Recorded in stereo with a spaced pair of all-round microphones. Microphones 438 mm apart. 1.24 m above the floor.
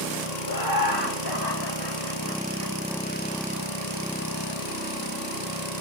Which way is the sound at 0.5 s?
50° left (ahead or behind).